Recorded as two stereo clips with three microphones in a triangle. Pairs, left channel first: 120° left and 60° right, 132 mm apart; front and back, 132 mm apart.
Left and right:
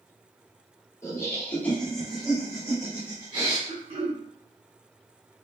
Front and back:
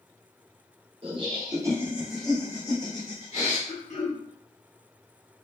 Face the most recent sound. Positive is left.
turn(degrees=-20)